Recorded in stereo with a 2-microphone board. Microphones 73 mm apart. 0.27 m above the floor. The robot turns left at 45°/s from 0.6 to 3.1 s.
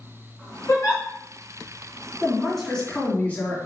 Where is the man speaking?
165° right, 3 m; by 3.6 s 155° left, 3 m.